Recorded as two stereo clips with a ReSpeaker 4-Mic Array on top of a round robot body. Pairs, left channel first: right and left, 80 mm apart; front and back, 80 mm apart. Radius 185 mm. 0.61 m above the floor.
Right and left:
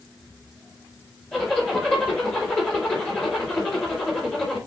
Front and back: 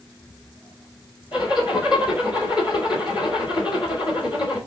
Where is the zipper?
15° right, 3 m.